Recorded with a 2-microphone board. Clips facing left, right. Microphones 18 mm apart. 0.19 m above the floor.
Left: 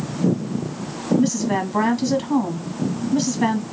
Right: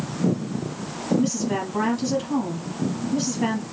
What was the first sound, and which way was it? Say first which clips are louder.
A woman speaking: left 4 dB; 25° left (ahead or behind).